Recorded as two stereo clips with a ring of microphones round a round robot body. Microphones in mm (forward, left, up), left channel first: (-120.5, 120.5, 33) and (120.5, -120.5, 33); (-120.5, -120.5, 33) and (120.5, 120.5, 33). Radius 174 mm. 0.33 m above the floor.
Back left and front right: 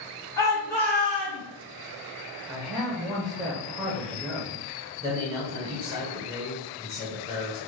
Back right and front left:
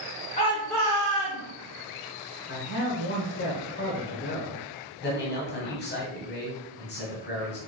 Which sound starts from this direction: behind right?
A man speaking, at 2.5 s.